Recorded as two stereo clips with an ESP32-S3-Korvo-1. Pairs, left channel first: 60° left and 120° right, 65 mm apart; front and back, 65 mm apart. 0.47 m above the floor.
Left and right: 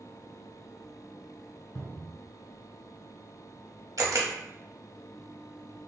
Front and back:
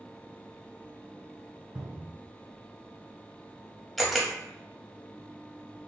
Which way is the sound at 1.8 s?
105° left.